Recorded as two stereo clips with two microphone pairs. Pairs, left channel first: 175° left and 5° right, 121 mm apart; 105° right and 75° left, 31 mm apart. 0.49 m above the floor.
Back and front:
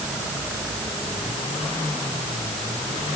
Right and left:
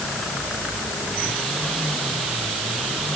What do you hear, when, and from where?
Only background noise.